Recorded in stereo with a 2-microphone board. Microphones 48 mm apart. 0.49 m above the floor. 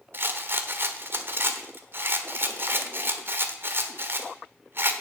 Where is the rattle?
50° right (ahead or behind), 1.2 m.